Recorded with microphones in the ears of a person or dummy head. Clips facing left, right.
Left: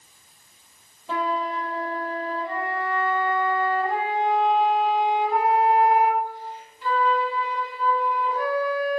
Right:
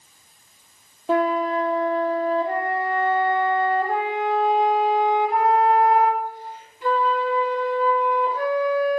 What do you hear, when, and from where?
1.1 s a flute: 45° right (ahead or behind), 0.9 m